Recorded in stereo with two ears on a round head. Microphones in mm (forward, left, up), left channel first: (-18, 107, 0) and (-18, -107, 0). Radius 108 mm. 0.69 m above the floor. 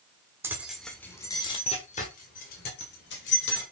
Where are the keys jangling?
10° right (ahead or behind), 1.3 m; by 3.6 s 50° left (ahead or behind), 2.5 m.